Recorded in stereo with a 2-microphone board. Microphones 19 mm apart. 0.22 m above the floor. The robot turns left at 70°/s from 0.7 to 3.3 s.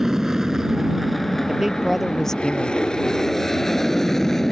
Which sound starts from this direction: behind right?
A woman speaking, at 1.5 s.